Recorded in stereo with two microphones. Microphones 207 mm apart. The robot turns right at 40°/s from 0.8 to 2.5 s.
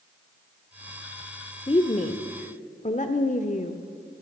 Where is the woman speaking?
50° left, 1.0 m; by 3.8 s 85° left, 1.0 m.